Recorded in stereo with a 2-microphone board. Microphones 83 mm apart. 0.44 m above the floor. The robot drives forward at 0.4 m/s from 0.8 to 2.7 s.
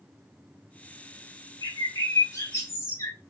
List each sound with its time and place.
1.6 s a bird: 45° left (ahead or behind), 1.1 m; by 3.2 s 35° left (ahead or behind), 1.4 m